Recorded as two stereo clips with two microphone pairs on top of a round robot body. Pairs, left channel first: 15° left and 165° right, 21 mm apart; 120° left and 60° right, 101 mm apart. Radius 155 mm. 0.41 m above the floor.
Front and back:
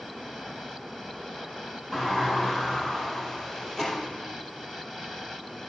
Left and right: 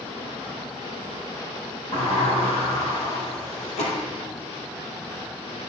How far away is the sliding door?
About 4 m.